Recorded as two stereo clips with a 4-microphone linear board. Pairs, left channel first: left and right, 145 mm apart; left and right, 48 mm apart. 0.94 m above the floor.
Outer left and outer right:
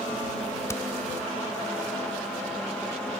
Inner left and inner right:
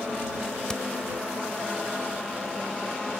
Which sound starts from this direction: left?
Hammering, at 0.7 s.